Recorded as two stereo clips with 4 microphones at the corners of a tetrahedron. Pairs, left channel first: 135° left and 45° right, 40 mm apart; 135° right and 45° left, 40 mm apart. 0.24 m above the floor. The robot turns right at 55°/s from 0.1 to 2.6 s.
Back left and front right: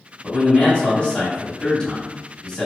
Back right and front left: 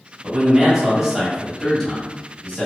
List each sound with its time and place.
0.2 s a man speaking: 75° left, 1.1 m; by 2.7 s 155° right, 1.1 m